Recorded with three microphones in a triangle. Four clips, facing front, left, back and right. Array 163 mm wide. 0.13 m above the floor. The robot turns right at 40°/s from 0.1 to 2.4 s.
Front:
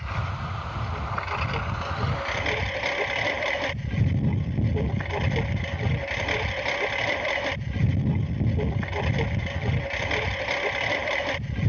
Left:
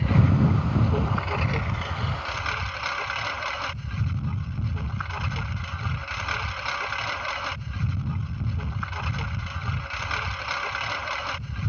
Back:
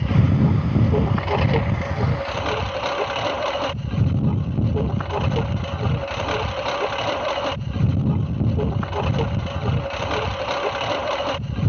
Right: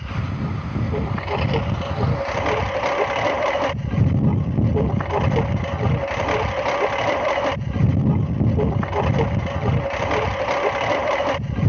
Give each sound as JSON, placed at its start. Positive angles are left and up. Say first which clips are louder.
{"t": 0.0, "sound": "a lawn mower", "louder": "left 6 dB, back 13 dB", "azimuth_deg": 160}